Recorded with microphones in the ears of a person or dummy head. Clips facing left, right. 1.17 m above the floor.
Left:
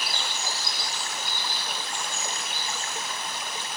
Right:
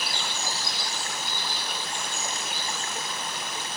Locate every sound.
Only background noise.